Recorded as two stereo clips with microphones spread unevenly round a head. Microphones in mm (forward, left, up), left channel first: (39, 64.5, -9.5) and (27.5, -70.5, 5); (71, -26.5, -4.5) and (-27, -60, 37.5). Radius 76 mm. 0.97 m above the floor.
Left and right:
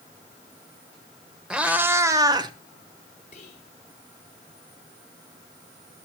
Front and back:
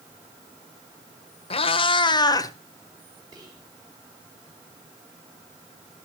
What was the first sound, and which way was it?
A cat meowing, 15° right.